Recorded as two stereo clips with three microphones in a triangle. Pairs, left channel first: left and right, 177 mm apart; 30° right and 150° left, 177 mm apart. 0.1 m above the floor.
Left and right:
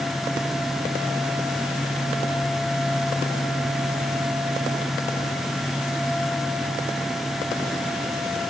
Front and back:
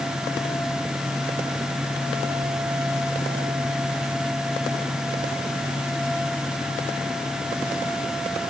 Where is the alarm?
I don't hear an alarm.